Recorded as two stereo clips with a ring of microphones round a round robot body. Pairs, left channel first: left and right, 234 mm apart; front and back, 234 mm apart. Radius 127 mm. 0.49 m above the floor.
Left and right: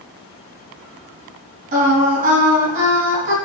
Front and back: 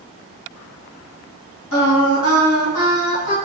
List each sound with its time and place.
1.7 s singing: 40° right, 3 m